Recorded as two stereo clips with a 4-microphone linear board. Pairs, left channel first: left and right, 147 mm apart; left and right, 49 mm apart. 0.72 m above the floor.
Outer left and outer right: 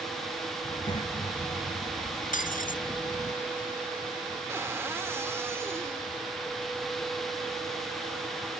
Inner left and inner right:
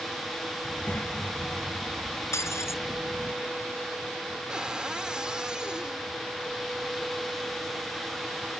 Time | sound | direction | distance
0.6 | a child speaking | 40° left (ahead or behind) | ?
2.3 | breaking glass | 70° left (ahead or behind) | ?
4.5 | a cupboard door | 20° right (ahead or behind) | ?